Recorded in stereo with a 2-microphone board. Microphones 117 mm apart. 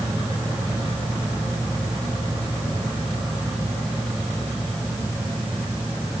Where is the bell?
No bell in this recording.